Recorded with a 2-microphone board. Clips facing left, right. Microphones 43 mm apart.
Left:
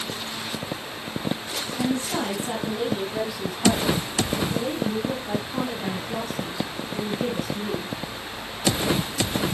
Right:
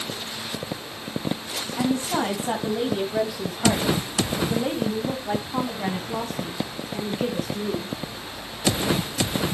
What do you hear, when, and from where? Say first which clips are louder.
1.8 s a woman speaking: right 2 dB; 30° right (ahead or behind), 2 m; by 7.9 s 25° right (ahead or behind), 3.5 m